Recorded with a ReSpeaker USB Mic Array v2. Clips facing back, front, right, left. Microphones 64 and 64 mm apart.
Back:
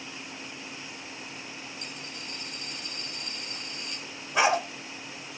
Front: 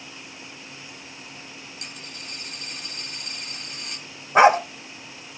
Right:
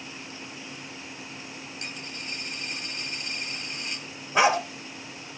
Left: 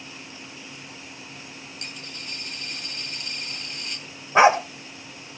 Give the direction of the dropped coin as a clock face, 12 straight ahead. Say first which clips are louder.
Even, right 1 dB; 1 o'clock.